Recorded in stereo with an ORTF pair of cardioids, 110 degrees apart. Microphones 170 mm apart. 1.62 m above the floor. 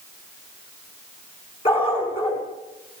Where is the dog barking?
35° left, 7 m.